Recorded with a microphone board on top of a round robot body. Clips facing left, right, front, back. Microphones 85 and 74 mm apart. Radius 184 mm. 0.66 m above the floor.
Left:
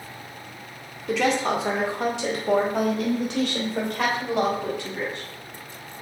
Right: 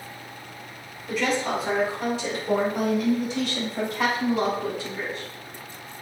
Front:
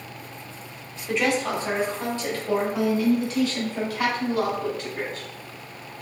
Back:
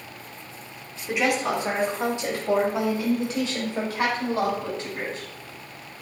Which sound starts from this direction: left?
A woman speaking, at 1.1 s.